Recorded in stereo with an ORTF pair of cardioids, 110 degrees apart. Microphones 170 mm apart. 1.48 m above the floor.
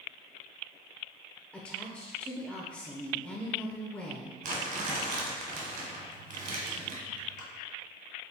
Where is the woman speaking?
10° left, 0.5 m.